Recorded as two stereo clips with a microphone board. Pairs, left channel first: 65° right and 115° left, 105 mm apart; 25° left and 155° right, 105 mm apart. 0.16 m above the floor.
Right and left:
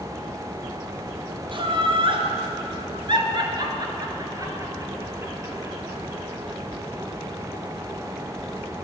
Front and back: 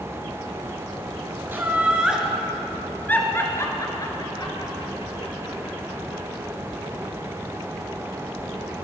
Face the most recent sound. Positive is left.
turn(degrees=40)